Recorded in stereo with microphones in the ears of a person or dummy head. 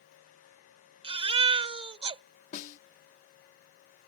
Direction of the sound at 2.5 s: 50° left (ahead or behind).